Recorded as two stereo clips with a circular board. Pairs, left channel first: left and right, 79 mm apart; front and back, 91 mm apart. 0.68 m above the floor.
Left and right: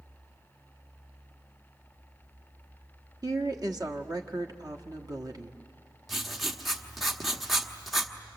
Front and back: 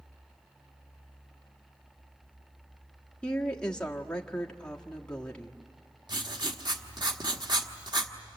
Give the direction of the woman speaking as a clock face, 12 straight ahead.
3 o'clock.